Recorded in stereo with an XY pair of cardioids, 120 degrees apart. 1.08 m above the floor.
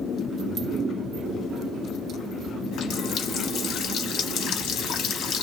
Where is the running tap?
65° left, 1.2 m.